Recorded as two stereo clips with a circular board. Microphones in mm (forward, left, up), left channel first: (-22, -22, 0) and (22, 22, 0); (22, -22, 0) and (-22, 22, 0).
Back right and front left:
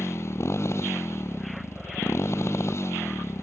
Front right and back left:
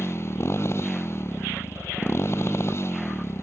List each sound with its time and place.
0.0 s a motorcycle: 90° right